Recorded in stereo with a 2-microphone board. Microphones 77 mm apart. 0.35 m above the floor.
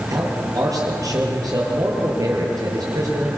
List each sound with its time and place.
0.1 s a man speaking: 50° right (ahead or behind), 7.5 m